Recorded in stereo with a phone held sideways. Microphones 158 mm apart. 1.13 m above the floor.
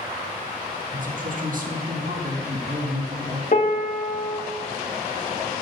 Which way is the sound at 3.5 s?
60° left (ahead or behind).